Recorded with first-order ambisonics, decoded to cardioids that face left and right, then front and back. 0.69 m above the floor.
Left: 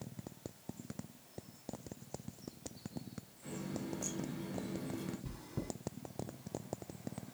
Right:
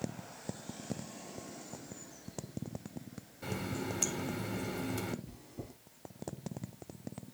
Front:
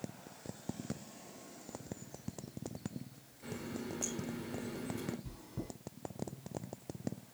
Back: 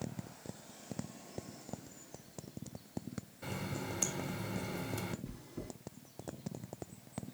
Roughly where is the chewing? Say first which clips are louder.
Left 4 dB, front 1 dB; left.